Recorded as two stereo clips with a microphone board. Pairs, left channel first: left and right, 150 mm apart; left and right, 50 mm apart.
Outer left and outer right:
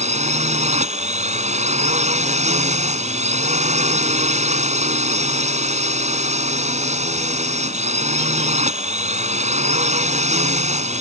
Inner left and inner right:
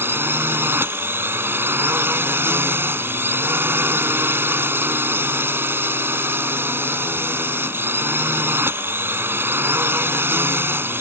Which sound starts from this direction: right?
A drone, at 0.0 s.